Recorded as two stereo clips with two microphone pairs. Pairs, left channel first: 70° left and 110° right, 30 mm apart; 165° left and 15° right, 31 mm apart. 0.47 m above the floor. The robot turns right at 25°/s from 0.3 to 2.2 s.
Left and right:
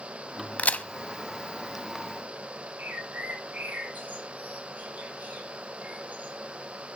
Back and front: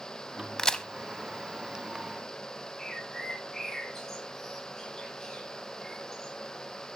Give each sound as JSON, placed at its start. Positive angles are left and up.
{"t": 0.6, "sound": "a crack", "azimuth_deg": 95, "distance_m": 0.8}
{"t": 2.8, "sound": "a bird", "azimuth_deg": -120, "distance_m": 8.0}